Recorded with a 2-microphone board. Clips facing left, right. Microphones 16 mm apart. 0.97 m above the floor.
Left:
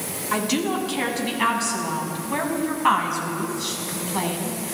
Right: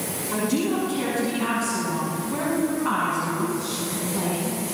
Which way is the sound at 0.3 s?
55° left (ahead or behind).